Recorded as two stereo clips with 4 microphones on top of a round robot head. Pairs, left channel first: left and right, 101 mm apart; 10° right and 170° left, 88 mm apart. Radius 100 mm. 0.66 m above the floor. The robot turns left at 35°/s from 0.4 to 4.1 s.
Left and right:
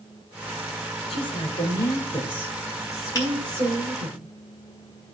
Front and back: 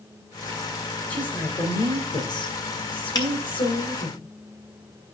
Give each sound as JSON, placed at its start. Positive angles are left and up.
{"t": 1.1, "sound": "a woman speaking", "azimuth_deg": 65, "distance_m": 3.5}
{"t": 3.1, "sound": "a finger snap", "azimuth_deg": 30, "distance_m": 4.5}